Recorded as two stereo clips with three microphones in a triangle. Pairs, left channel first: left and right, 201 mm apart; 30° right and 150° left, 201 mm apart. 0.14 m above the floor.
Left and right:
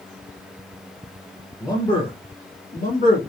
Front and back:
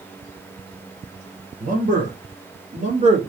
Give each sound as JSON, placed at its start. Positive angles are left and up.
{"t": 1.6, "sound": "a man speaking", "azimuth_deg": 155, "distance_m": 1.4}